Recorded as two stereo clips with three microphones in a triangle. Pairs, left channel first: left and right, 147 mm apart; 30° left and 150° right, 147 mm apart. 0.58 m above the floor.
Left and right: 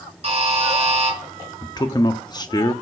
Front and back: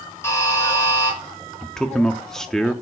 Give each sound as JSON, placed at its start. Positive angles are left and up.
{"t": 0.2, "sound": "a buzzer", "azimuth_deg": -45, "distance_m": 4.5}
{"t": 1.6, "sound": "a man speaking", "azimuth_deg": 115, "distance_m": 0.6}